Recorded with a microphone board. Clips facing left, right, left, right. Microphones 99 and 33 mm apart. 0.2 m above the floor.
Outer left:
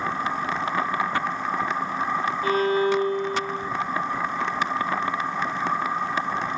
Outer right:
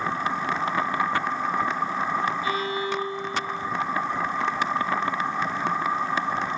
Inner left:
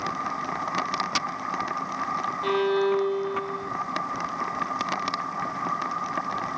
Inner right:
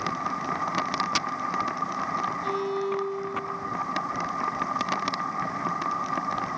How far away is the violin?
About 0.8 m.